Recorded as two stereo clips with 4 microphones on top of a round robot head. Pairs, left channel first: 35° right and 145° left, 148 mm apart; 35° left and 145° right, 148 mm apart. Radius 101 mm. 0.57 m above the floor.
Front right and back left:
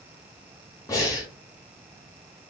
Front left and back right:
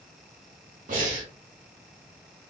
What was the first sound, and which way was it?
Breathing, 105° right.